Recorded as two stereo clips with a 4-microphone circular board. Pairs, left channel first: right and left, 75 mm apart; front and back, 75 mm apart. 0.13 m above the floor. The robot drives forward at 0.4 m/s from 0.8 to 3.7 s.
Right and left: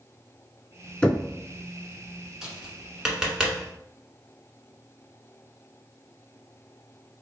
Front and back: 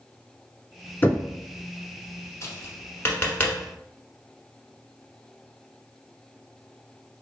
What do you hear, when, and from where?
1.0 s knocking: 20° right, 0.8 m; by 1.3 s 30° right, 0.8 m
2.4 s tapping: 10° left, 1.3 m; by 3.6 s 25° left, 1.0 m